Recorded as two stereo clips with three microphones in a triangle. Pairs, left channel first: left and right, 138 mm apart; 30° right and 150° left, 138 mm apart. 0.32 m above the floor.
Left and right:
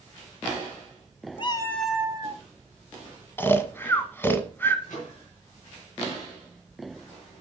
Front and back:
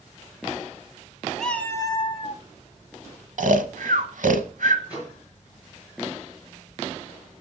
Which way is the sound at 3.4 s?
165° left.